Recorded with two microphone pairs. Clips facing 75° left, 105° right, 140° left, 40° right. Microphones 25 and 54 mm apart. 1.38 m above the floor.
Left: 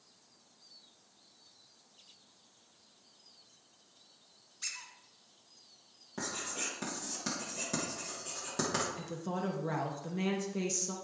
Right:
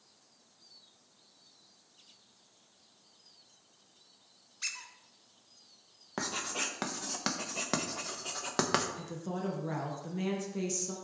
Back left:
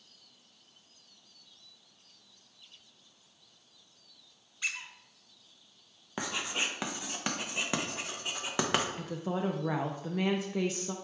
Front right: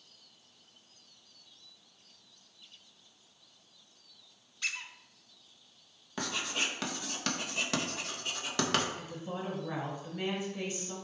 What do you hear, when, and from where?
4.6 s a squeak: 160° right, 1.3 m
6.2 s writing: 150° right, 1.3 m
9.0 s a woman speaking: 150° left, 1.1 m